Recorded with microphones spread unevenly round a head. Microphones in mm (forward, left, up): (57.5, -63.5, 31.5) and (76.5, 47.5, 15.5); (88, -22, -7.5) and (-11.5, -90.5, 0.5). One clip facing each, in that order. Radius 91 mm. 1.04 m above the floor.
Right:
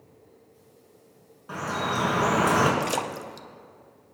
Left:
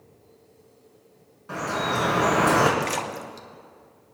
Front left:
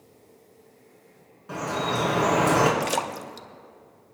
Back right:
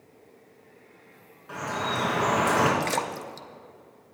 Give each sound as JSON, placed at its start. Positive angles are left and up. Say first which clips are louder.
{"t": 1.5, "sound": "dripping", "louder": "left 2 dB, front left 3 dB", "azimuth_deg": -20, "distance_m": 4.0}
{"t": 2.8, "sound": "a splash", "louder": "even, front left 1 dB", "azimuth_deg": -40, "distance_m": 0.7}